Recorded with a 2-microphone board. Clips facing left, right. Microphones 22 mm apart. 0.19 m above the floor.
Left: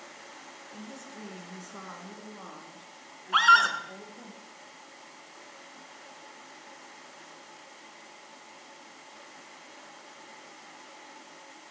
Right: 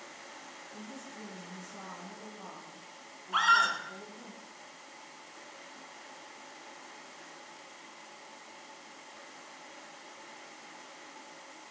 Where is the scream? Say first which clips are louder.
Left 5 dB; 30° left (ahead or behind), 1.6 m.